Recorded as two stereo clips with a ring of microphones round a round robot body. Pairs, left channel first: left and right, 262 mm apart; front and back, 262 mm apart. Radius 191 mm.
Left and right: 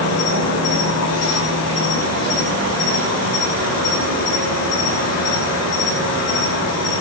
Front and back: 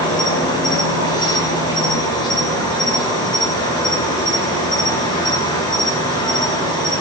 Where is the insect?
75° left, 6.5 m.